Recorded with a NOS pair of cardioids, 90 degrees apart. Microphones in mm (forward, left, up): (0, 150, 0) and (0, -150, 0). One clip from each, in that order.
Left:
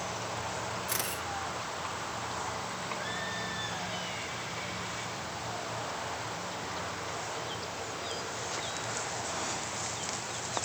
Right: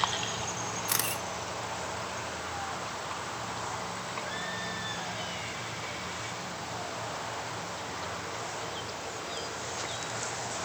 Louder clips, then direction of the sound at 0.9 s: Right 5 dB; 40° right.